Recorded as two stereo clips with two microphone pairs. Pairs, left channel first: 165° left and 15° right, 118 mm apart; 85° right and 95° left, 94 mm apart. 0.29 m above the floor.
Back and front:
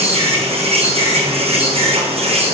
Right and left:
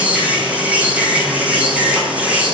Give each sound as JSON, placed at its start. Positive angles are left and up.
{"t": 0.0, "sound": "an insect", "azimuth_deg": 20, "distance_m": 3.5}